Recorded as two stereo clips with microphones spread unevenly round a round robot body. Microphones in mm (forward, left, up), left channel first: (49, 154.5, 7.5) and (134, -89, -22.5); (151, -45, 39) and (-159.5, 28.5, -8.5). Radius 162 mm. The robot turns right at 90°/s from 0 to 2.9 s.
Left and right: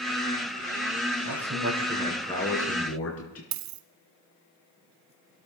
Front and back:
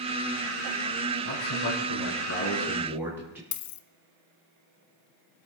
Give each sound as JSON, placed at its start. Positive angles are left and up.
{"t": 1.2, "sound": "a man speaking", "azimuth_deg": -65, "distance_m": 5.0}
{"t": 3.5, "sound": "a dropped coin", "azimuth_deg": -55, "distance_m": 1.0}